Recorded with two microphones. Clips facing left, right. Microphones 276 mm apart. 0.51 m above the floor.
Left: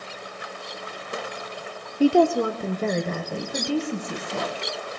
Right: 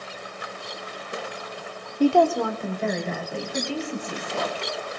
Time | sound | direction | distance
2.0 | a woman speaking | 5° left (ahead or behind) | 0.8 m